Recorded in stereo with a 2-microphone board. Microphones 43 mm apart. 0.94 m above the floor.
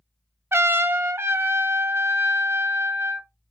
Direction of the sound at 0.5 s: 60° right (ahead or behind).